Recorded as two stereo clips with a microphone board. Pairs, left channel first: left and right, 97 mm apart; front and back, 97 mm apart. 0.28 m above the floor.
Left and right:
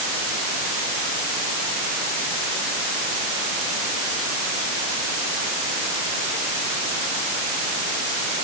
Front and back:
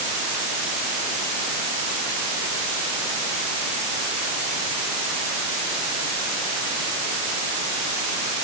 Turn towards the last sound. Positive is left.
No sound to turn to.